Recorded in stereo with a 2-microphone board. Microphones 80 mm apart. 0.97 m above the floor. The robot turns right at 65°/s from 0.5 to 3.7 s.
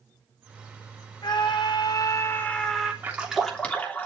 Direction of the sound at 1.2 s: 75° left.